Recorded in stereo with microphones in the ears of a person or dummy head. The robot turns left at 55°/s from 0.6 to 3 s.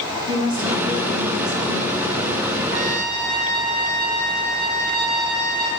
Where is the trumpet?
85° right, 1.3 m; by 5.7 s 70° right (ahead or behind), 1.3 m.